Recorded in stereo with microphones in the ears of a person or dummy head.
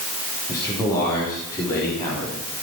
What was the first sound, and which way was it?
A man speaking, 15° left (ahead or behind).